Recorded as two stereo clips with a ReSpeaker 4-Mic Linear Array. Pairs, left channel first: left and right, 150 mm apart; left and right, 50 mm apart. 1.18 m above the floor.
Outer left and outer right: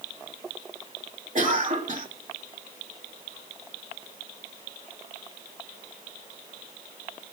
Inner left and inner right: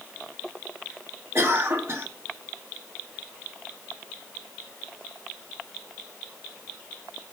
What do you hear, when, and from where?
1.4 s a cough: 55° right (ahead or behind), 3 m